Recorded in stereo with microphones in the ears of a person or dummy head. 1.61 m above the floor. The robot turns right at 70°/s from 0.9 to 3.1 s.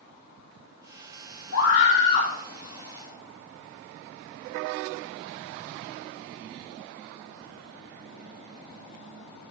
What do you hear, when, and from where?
1.5 s a scream: 90° left, 5 m; by 2.3 s 145° left, 5 m